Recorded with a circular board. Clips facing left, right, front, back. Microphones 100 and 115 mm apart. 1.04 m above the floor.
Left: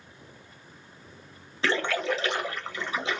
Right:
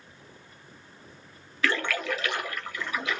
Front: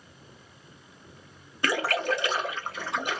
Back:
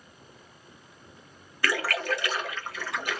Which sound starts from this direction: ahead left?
A splash, at 1.6 s.